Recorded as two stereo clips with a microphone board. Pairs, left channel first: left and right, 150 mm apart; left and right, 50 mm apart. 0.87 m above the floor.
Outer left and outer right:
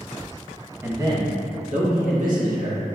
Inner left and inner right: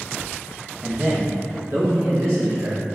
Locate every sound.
0.8 s a man speaking: 15° right (ahead or behind), 0.6 m; by 2.9 s 70° right (ahead or behind), 1.4 m